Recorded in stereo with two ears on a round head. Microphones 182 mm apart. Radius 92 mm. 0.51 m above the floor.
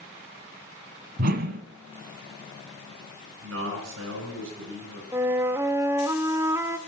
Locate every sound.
1.2 s a whoosh: 60° right (ahead or behind), 1.2 m
3.4 s a man speaking: 70° right (ahead or behind), 5.5 m
5.1 s a flute: 15° right (ahead or behind), 0.7 m